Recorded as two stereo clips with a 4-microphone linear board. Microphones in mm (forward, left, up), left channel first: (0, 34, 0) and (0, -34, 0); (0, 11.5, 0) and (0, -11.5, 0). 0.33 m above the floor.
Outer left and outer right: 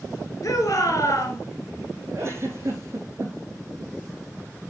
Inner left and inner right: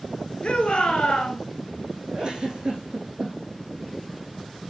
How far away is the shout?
About 4.5 m.